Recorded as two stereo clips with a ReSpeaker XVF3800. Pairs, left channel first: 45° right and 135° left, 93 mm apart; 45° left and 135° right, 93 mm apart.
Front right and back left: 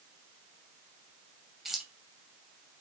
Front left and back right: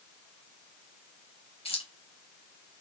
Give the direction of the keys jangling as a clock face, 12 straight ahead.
10 o'clock.